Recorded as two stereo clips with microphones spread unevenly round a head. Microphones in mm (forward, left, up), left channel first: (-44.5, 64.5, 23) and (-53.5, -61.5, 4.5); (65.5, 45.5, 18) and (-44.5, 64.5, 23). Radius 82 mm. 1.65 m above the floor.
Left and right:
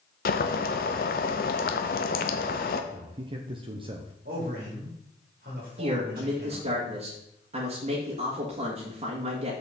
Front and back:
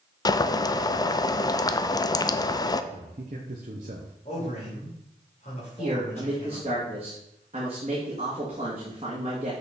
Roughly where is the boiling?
Ahead left.